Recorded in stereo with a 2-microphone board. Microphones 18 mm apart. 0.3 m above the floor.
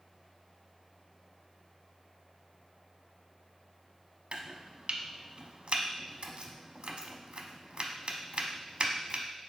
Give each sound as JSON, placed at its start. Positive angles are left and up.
{"t": 4.3, "sound": "chopping", "side_deg": -75, "distance_m": 0.5}